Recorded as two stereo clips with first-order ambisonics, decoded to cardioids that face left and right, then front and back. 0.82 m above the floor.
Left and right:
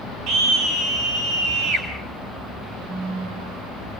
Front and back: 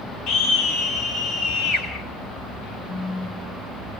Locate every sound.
0.3 s a scream: 50° right, 4 m
2.9 s a phone buzzing: 30° right, 0.8 m